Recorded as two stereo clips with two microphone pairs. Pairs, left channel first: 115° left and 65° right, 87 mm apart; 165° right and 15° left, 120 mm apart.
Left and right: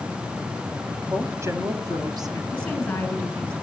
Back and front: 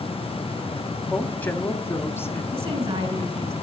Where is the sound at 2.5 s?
40° left, 3 m.